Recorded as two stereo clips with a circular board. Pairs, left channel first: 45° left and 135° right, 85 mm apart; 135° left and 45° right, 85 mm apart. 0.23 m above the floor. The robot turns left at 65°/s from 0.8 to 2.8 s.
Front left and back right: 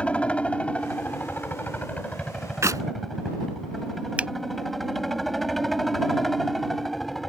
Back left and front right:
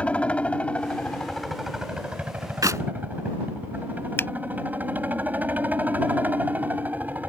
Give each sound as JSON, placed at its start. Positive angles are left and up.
{"t": 0.0, "sound": "a helicopter", "azimuth_deg": 90}
{"t": 2.6, "sound": "a clap", "azimuth_deg": -85}
{"t": 4.2, "sound": "a finger snap", "azimuth_deg": 165}